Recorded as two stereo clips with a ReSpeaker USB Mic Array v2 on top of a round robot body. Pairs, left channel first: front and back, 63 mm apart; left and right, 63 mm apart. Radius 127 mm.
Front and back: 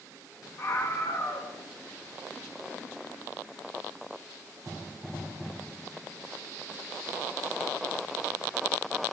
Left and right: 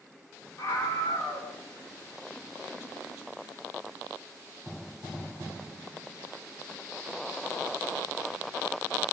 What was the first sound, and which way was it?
A scream, 50° left.